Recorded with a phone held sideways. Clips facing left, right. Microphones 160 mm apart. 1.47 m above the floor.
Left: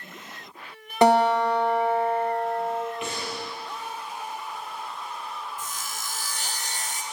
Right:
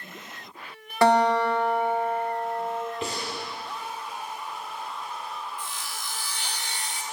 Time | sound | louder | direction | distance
1.0 | a guitar | left 1 dB | 20° left (ahead or behind) | 1.0 m
3.0 | breathing | even | 35° right (ahead or behind) | 1.4 m
5.6 | sawing | left 1 dB | 50° left (ahead or behind) | 0.5 m